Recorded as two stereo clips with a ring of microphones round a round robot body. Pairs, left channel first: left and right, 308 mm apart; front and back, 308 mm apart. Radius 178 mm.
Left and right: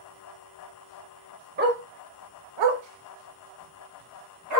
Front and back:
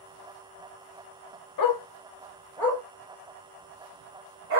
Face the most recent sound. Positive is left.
turn(degrees=-135)